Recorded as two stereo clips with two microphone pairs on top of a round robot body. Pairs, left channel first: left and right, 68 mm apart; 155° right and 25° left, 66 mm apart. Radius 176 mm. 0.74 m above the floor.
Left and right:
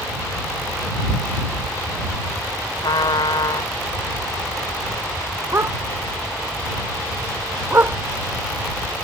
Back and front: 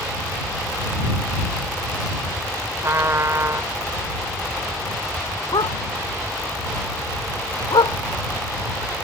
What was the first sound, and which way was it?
A trumpet, 75° left.